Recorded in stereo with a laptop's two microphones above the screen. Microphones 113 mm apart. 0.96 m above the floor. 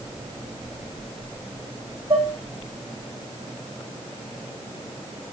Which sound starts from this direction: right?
Dishes clattering, at 2.1 s.